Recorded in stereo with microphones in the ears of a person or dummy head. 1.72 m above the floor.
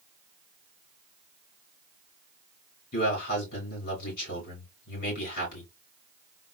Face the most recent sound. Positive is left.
turn(degrees=45)  # may be behind; listen again after turning